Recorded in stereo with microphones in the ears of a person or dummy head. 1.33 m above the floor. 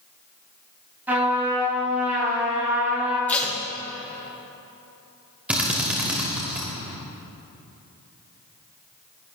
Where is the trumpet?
15° right (ahead or behind), 4.5 m.